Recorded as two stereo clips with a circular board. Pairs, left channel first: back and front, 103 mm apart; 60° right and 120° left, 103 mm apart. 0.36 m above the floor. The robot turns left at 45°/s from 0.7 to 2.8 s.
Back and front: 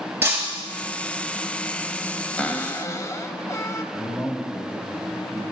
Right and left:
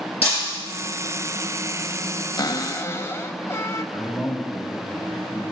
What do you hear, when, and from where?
0.2 s breaking glass: 70° right, 4 m
2.4 s a cupboard door: 105° right, 0.5 m; by 3.8 s 125° right, 0.5 m
3.9 s a man speaking: 145° right, 0.9 m